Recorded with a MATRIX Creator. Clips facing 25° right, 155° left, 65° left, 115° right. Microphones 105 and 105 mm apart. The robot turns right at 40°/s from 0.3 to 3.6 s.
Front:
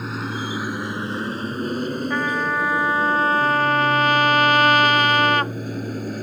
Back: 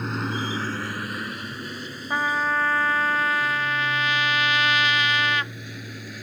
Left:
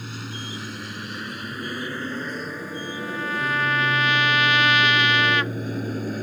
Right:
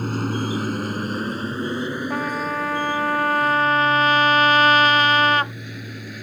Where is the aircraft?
110° right; by 6.2 s 20° left.